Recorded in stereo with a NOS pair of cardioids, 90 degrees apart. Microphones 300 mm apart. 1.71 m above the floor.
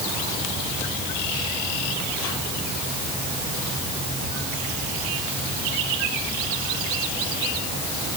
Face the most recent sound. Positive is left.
No sound to turn to.